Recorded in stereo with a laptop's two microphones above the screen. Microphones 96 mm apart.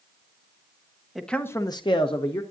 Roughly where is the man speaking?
Centre.